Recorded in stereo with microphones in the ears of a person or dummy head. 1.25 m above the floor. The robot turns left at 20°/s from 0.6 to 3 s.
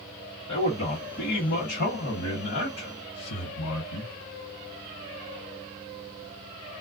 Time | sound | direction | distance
0.5 | a man speaking | 145° left | 1.4 m